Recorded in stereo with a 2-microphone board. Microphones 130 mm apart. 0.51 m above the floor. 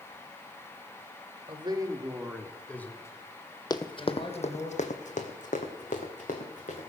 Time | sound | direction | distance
1.5 | a man speaking | 40° right (ahead or behind) | 1.4 m
3.7 | running footsteps | 30° left (ahead or behind) | 0.8 m